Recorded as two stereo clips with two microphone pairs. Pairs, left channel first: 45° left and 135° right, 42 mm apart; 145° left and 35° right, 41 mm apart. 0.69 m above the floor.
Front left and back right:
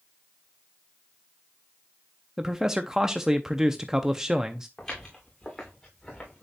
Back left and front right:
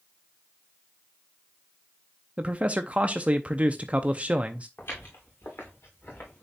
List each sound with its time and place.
2.4 s a man speaking: 60° right, 0.6 m
4.8 s footsteps: 125° left, 3.5 m; by 6.4 s 120° left, 4 m